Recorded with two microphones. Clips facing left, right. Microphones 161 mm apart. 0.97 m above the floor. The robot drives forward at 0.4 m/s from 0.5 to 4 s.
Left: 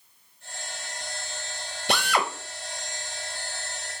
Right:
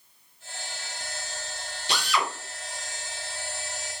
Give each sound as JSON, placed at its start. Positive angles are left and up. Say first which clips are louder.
{"t": 1.9, "sound": "a drill", "louder": "left 3 dB", "side_deg": 50, "distance_m": 0.8}